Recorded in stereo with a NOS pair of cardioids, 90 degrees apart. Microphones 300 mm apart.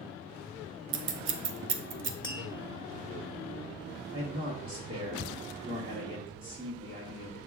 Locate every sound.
0.9 s scissors: 40° right, 0.6 m
2.2 s tapping: 15° left, 1.5 m
4.1 s a man speaking: 30° right, 1.1 m